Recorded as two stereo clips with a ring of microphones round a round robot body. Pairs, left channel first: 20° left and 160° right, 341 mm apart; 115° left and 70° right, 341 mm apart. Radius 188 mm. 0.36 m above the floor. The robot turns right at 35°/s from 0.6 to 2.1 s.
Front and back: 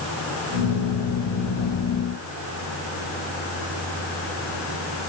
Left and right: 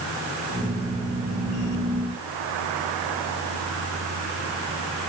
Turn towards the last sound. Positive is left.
No sound to turn to.